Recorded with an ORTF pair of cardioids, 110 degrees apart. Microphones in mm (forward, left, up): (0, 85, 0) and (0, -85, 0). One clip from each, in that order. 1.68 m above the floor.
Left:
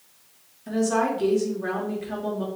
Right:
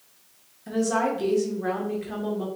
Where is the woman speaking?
5° right, 1.4 m.